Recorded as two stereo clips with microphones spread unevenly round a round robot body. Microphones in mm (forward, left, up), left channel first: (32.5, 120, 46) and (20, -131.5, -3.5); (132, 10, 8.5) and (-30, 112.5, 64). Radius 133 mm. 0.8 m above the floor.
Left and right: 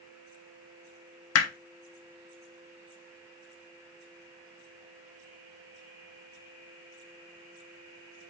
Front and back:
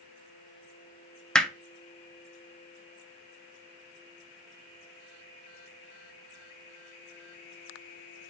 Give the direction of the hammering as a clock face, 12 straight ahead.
10 o'clock.